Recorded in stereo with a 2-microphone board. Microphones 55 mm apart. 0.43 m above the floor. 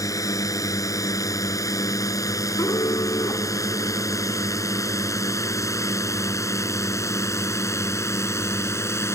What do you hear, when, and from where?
0.0 s a drone: 80° left; by 9.2 s 55° left (ahead or behind)
2.6 s an alarm: 85° left